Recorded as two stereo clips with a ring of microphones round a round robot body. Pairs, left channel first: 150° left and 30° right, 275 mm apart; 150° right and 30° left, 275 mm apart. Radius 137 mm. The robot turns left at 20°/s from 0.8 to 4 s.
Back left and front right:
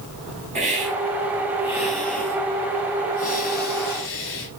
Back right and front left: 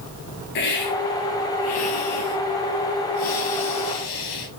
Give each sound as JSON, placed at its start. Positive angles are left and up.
{"t": 0.6, "sound": "a hiss", "azimuth_deg": -100, "distance_m": 4.5}